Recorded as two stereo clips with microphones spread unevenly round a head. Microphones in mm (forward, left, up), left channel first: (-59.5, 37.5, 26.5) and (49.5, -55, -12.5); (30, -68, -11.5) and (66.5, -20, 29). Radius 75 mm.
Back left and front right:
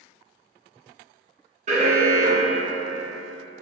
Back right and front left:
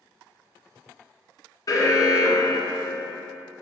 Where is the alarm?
90° right, 0.7 m.